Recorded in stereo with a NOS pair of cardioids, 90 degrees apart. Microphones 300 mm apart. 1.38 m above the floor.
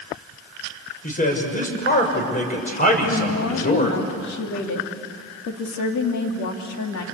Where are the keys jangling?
I don't hear keys jangling.